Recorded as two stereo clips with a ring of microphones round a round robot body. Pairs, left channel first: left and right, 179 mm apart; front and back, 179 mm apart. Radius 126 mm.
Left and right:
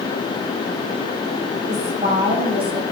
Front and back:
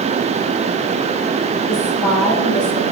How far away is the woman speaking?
About 5.5 m.